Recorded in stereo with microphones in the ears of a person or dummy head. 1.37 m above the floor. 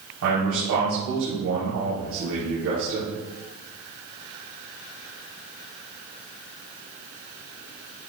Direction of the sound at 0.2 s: 75° right (ahead or behind).